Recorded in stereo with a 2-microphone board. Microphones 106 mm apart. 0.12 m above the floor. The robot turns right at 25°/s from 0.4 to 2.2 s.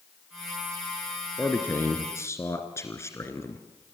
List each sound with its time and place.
1.4 s a man speaking: 15° left (ahead or behind), 2.0 m; by 3.6 s 25° left (ahead or behind), 2.0 m